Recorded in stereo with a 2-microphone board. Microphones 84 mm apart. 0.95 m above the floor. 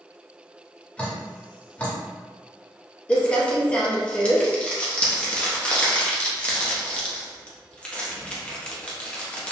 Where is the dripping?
20° left (ahead or behind), 1.0 m.